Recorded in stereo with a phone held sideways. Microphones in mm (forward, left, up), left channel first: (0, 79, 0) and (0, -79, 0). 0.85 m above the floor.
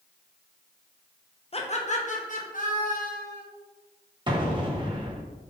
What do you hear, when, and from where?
1.5 s laughter: 40° left (ahead or behind), 0.6 m; by 3.4 s 65° left (ahead or behind), 1.5 m
4.3 s an explosion: 30° right (ahead or behind), 0.8 m